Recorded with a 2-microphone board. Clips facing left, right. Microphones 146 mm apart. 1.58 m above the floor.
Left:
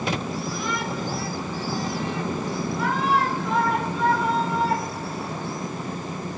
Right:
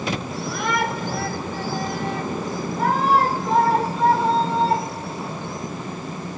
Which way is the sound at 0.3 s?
75° right (ahead or behind).